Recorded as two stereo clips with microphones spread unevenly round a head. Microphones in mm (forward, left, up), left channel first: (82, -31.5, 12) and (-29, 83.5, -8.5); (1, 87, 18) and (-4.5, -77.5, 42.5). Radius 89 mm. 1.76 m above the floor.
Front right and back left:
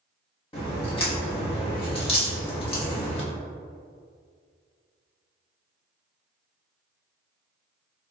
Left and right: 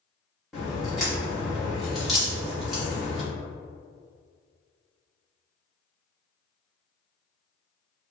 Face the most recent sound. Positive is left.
turn(degrees=-10)